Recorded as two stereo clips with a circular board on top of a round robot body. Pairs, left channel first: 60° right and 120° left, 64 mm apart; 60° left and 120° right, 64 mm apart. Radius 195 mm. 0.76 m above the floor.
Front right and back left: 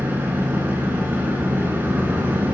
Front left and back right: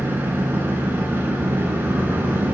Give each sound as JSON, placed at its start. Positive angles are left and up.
{"t": 0.0, "sound": "an engine running", "azimuth_deg": 180, "distance_m": 1.3}